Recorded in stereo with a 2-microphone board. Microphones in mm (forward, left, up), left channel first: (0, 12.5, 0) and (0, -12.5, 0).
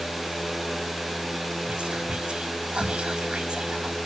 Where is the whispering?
40° right (ahead or behind), 1.5 m.